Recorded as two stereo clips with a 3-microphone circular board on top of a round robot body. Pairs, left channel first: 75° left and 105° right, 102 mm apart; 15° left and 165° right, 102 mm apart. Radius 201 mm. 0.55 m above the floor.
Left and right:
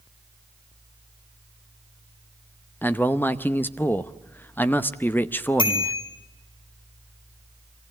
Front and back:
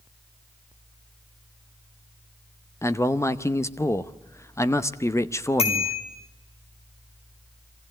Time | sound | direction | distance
2.8 | a man speaking | 25° left | 1.1 m
5.6 | a bicycle bell | 35° left | 5 m